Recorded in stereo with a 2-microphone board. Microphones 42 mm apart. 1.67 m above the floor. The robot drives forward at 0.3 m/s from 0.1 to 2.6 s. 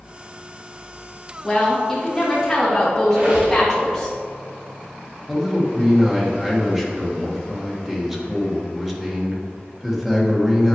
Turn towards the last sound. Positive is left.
turn(degrees=-10)  # may be behind; listen again after turning